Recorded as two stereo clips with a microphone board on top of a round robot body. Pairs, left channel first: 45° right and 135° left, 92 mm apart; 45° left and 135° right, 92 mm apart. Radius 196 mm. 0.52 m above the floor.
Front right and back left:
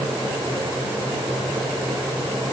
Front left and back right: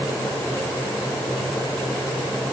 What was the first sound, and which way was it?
Only background noise.